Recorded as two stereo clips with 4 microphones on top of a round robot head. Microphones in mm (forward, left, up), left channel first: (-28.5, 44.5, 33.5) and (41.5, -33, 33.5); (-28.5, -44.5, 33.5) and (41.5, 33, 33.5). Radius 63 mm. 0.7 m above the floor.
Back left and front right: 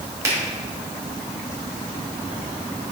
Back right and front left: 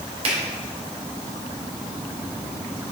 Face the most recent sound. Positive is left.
turn(degrees=15)